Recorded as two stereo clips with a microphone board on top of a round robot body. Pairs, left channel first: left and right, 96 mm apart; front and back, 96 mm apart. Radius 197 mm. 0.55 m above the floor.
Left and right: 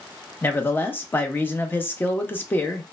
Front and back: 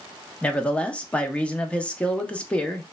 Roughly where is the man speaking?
Ahead left.